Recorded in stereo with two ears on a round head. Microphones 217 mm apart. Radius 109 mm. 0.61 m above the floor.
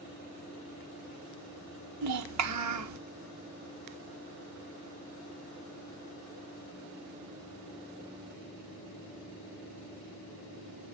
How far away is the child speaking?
About 0.9 m.